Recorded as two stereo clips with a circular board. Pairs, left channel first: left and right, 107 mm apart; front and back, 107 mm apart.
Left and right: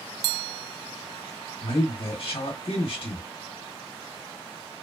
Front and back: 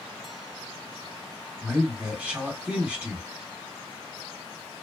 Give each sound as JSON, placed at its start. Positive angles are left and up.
{"t": 1.6, "sound": "a man speaking", "azimuth_deg": 105, "distance_m": 1.3}